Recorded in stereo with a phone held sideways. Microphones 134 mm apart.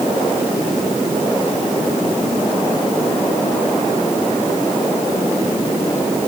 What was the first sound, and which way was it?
Only background noise.